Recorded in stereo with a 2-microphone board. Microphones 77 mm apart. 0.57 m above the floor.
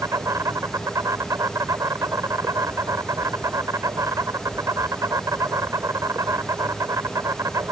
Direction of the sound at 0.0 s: 50° right (ahead or behind).